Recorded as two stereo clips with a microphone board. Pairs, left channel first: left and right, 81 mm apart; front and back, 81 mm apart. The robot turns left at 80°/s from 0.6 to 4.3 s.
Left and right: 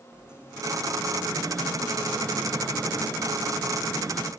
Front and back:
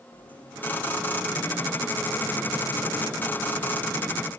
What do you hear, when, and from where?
0.1 s a sliding door: 10° right, 8.5 m; by 4.3 s 55° left, 8.5 m